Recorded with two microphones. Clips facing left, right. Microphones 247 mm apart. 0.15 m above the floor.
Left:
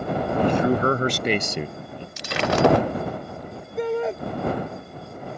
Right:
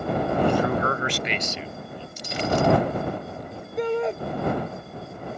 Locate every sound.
0.4 s a man speaking: 15° left (ahead or behind); by 2.1 s 60° left (ahead or behind)
2.2 s breaking glass: 75° left (ahead or behind)
3.8 s a shout: centre (ahead or behind)